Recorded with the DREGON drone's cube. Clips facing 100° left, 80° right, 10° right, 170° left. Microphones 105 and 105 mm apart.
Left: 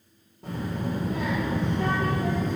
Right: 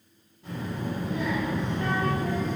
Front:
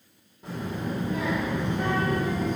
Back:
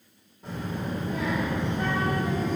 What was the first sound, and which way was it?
A child speaking, 75° left.